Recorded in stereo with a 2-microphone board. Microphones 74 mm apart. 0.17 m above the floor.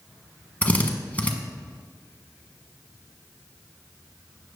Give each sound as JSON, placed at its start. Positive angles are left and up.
{"t": 0.6, "sound": "a drill", "side_deg": 20, "distance_m": 1.3}